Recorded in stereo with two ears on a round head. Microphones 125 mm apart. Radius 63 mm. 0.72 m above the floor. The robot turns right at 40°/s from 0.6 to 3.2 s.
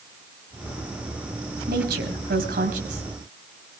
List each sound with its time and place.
1.7 s a woman speaking: 105° right, 4.5 m; by 3.0 s 50° right, 4.5 m